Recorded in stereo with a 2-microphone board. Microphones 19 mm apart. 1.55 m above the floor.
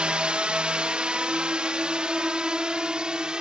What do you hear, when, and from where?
0.0 s a drone: 75° right (ahead or behind); by 3.4 s 50° right (ahead or behind)